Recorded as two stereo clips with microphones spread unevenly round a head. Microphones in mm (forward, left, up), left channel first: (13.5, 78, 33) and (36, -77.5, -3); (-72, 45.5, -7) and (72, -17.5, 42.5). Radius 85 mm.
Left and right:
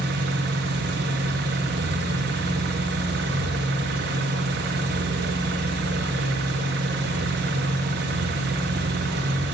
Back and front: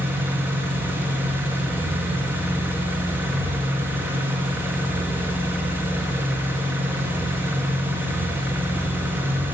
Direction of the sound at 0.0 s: 105° right.